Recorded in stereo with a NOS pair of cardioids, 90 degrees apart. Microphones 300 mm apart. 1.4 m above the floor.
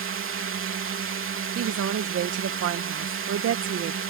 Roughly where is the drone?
Ahead right.